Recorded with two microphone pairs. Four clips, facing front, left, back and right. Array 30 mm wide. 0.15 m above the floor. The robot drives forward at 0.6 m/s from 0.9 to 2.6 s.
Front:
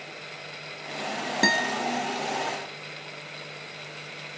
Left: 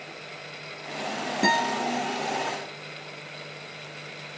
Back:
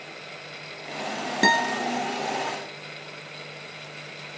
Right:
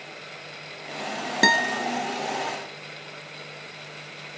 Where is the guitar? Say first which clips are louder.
Right 3 dB, back 3 dB; 90° right, 3 m; by 1.9 s 95° right, 3 m.